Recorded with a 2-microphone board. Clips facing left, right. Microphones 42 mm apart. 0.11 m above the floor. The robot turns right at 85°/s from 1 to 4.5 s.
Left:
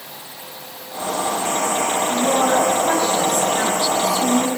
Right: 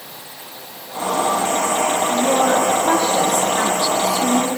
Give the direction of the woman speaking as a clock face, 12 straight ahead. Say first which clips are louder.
Even; 6 o'clock.